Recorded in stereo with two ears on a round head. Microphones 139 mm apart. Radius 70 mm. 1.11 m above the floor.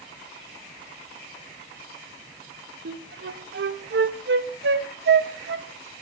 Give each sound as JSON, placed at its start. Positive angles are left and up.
{"t": 2.9, "sound": "a flute", "side_deg": -70, "distance_m": 1.4}